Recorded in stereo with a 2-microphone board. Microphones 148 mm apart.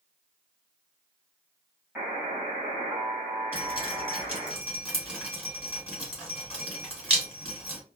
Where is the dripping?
10° right (ahead or behind), 1.9 m.